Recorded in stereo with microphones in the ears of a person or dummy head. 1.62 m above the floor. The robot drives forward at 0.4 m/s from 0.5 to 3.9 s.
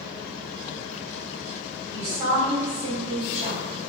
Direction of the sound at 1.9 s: 50° right (ahead or behind).